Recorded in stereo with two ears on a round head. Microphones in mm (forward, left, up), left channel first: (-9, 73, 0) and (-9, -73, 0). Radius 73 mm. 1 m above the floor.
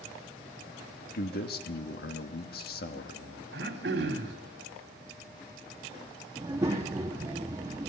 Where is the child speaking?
20° right (ahead or behind), 1.1 m.